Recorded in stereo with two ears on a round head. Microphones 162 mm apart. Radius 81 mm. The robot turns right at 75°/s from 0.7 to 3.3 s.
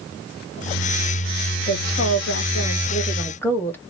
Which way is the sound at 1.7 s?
45° left.